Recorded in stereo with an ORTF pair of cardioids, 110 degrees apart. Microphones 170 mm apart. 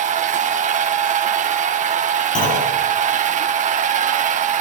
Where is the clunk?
50° left, 8 m.